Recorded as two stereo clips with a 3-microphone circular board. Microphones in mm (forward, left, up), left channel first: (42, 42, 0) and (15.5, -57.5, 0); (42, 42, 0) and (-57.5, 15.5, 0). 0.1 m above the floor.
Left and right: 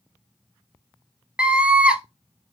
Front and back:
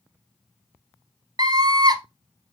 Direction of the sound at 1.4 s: Straight behind.